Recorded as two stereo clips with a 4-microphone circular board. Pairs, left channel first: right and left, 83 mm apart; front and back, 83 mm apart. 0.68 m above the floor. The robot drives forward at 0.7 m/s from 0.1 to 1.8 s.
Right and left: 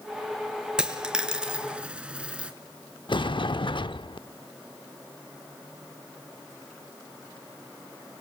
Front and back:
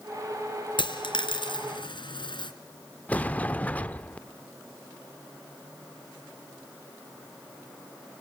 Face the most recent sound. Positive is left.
turn(degrees=-70)